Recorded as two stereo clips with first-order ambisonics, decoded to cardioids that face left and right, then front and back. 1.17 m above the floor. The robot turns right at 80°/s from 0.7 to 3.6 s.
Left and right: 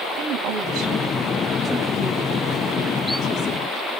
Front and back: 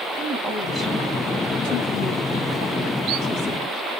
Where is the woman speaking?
70° right, 5 m; by 3.8 s 165° left, 5 m.